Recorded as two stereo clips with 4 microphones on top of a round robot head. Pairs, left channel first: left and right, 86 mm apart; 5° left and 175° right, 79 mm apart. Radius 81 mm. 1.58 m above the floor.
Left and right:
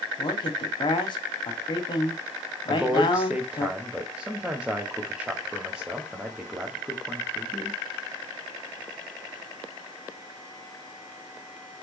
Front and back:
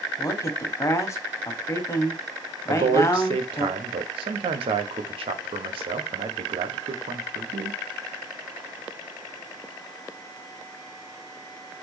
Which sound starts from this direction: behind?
A man speaking, at 2.7 s.